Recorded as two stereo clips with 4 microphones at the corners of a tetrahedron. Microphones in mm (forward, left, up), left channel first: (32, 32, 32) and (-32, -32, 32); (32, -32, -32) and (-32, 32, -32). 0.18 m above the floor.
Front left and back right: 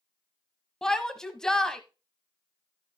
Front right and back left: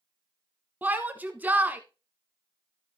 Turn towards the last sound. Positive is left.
turn(degrees=115)